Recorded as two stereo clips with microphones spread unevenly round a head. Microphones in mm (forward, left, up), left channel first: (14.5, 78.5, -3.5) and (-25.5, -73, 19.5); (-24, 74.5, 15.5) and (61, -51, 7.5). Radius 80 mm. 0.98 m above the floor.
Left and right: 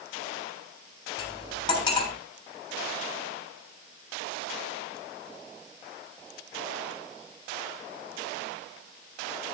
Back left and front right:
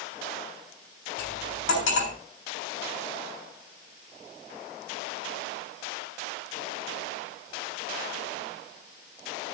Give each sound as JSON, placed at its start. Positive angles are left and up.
{"t": 1.2, "sound": "cutlery clinking", "azimuth_deg": 140, "distance_m": 6.5}